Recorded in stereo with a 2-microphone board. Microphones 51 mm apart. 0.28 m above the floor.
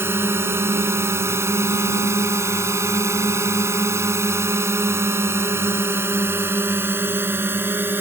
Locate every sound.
0.0 s a drone: 50° right (ahead or behind); by 8.0 s 45° right (ahead or behind)